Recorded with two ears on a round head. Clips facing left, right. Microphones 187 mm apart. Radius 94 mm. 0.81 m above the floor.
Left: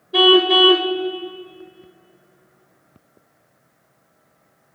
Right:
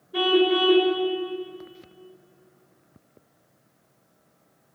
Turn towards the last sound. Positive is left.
turn(degrees=80)